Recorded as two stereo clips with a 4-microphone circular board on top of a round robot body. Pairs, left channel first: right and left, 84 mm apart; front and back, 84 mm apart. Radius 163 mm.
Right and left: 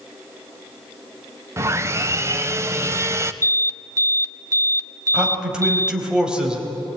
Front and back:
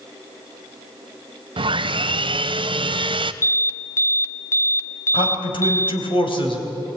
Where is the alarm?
50° left, 1.3 m.